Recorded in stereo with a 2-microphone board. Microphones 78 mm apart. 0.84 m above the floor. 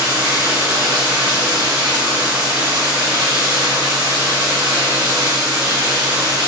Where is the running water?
75° right (ahead or behind), 2 m.